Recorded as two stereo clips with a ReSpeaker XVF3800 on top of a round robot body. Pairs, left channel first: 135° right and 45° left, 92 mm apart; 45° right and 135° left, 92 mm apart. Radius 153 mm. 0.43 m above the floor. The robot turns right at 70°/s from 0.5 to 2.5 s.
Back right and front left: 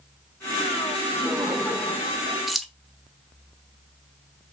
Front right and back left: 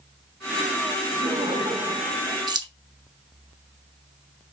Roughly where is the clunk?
I don't hear a clunk.